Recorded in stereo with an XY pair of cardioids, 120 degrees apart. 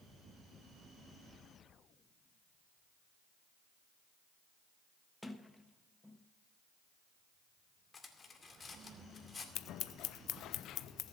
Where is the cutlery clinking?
30° left, 2 m.